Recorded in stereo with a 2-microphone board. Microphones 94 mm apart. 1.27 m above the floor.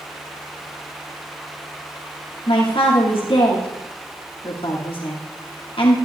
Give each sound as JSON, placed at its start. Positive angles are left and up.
{"t": 2.5, "sound": "a man speaking", "side_deg": 75, "distance_m": 2.5}